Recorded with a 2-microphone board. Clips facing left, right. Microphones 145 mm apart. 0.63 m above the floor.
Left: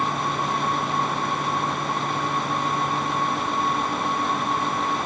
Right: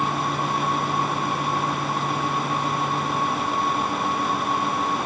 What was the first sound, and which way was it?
Only background noise.